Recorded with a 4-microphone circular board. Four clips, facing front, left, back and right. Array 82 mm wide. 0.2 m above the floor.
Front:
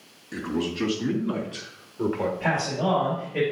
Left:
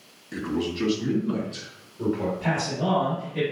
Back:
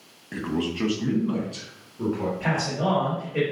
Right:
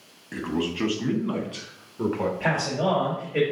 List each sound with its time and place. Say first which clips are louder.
0.3 s a man speaking: even, back 1 dB; 140° right, 1.4 m; by 2.3 s 60° right, 2 m
2.4 s a man speaking: right 2 dB, even; 95° right, 4 m